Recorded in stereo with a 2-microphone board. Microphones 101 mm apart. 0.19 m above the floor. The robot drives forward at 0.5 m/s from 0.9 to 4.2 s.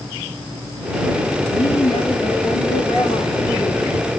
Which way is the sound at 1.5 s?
70° left (ahead or behind).